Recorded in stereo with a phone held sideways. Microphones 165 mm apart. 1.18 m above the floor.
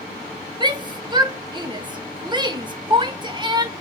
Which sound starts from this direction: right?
A shout, at 0.6 s.